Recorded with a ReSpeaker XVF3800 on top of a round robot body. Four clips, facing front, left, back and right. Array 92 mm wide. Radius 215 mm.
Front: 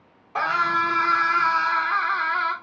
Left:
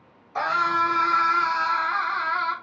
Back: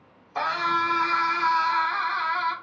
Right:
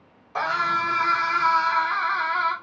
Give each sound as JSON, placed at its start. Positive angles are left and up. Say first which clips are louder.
{"t": 0.3, "sound": "a scream", "louder": "left 1 dB, front 3 dB", "azimuth_deg": -30, "distance_m": 2.5}